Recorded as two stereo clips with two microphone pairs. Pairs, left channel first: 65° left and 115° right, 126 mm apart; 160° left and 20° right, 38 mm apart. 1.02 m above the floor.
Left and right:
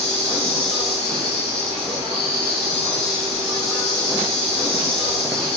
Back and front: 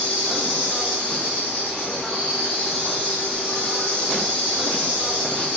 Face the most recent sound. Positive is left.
turn(degrees=150)